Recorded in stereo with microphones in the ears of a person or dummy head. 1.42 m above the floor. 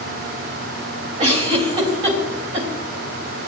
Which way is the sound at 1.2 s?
25° right (ahead or behind).